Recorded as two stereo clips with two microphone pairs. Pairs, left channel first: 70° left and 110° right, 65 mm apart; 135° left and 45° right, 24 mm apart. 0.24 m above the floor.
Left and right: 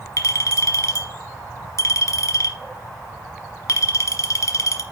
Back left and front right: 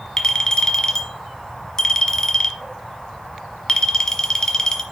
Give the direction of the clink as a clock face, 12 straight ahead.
9 o'clock.